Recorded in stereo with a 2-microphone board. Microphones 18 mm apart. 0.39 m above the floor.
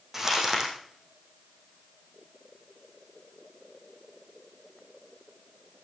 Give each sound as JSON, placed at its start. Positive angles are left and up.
{"t": 0.1, "sound": "crumpling", "side_deg": -20, "distance_m": 5.0}